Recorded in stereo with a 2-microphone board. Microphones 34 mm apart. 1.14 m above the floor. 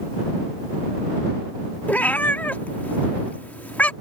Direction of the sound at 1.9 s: 50° left (ahead or behind).